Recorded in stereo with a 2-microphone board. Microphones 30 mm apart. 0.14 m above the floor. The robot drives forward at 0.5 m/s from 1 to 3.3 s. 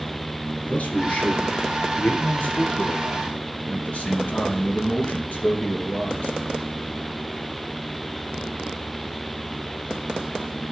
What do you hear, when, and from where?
0.6 s a man speaking: 55° left (ahead or behind), 2.5 m; by 6.4 s 50° left (ahead or behind), 2.5 m